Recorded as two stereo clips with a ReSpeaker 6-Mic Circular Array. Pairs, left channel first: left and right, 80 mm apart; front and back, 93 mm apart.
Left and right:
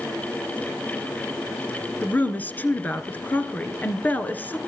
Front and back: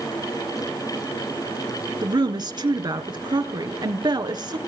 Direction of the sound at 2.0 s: 155° left.